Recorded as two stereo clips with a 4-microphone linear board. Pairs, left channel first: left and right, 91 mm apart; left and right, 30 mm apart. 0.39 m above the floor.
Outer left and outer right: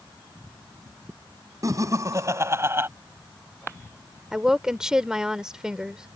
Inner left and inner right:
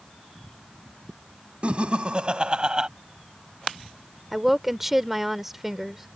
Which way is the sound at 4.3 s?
10° right (ahead or behind).